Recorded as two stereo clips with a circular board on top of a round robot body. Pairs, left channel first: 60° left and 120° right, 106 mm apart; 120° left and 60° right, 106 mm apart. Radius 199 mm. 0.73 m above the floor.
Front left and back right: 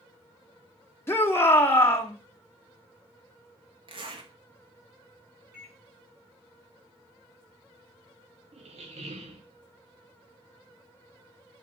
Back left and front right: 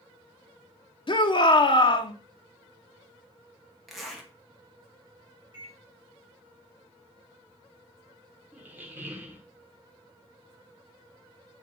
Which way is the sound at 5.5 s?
160° left.